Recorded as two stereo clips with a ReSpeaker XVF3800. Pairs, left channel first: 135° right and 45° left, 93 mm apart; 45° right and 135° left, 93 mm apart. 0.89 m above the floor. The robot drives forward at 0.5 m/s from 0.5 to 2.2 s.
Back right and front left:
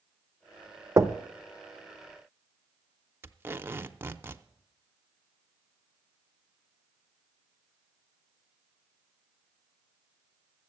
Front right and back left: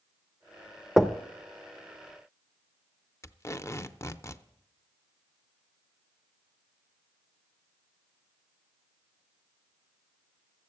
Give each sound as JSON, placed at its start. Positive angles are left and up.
{"t": 1.0, "sound": "knocking", "azimuth_deg": 40, "distance_m": 0.6}
{"t": 3.2, "sound": "tape being pulled", "azimuth_deg": -5, "distance_m": 0.5}